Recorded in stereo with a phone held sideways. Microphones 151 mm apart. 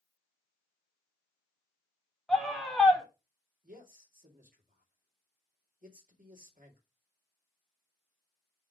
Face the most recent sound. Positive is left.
turn(degrees=-65)  # may be behind; listen again after turning